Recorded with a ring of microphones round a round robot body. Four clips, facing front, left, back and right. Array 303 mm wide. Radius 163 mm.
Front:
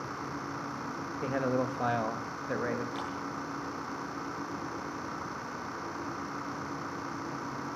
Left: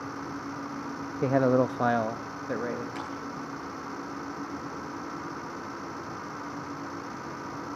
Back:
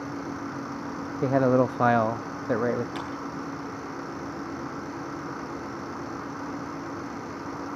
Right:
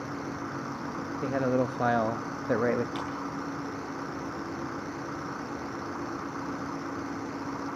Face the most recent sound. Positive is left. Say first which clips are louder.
# right 2 dB, back 3 dB
turn(degrees=-170)